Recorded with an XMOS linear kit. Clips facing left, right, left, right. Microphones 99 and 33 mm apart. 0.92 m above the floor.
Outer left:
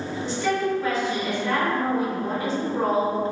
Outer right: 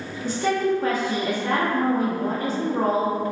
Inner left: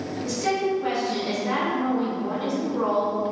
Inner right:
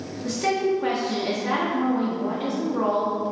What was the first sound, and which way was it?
A woman speaking, 45° right (ahead or behind).